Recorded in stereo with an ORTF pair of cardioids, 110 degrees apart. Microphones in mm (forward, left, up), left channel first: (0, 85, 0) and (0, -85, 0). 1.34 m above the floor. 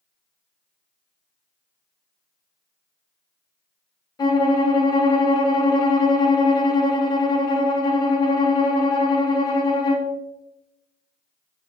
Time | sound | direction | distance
4.2 | a violin | 25° left | 0.9 m